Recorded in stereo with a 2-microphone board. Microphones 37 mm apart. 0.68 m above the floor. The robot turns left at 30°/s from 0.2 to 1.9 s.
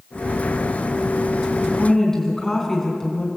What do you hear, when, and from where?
1.6 s a woman speaking: 20° left (ahead or behind), 6 m; by 3.3 s 10° left (ahead or behind), 6 m